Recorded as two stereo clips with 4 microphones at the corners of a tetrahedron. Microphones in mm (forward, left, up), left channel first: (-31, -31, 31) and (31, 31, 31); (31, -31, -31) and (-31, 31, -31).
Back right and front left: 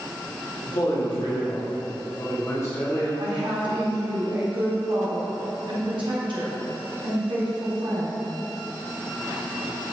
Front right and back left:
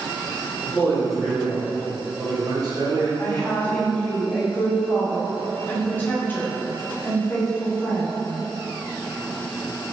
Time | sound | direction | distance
0.6 | a man speaking | 130° right | 1.4 m
3.2 | a woman speaking | 25° left | 1.1 m